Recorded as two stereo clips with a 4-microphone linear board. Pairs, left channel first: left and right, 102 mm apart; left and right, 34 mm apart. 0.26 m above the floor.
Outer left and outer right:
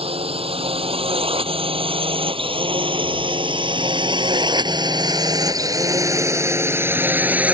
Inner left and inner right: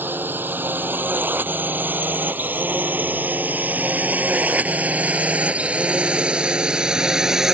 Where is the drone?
75° right (ahead or behind); by 7.5 s 15° right (ahead or behind).